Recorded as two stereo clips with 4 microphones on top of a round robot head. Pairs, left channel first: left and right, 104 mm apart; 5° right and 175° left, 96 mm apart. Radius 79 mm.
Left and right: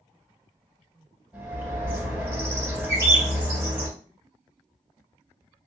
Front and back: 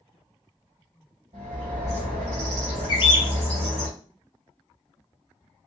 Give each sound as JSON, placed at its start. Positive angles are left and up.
{"t": 1.3, "sound": "a bird", "azimuth_deg": -165, "distance_m": 1.3}
{"t": 2.9, "sound": "a bird", "azimuth_deg": -30, "distance_m": 0.9}